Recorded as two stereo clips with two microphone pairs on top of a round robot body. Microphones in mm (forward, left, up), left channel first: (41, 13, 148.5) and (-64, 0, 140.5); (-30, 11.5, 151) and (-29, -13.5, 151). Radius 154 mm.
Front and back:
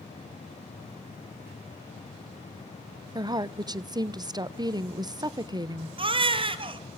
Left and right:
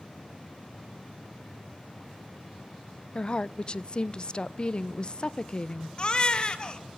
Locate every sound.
3.1 s a woman speaking: 145° left, 0.9 m
6.0 s a baby crying: 145° left, 1.3 m